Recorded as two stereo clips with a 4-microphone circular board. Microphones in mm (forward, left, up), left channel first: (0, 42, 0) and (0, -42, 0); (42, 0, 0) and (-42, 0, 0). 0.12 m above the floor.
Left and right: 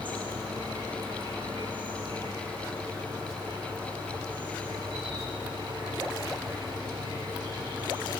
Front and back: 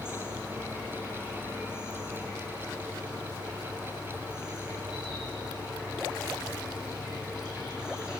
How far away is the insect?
About 5 m.